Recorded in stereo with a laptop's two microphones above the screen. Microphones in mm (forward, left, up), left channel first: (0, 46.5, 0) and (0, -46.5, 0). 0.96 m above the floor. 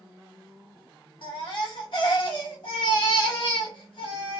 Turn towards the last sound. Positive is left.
turn(degrees=55)  # may be behind; listen again after turning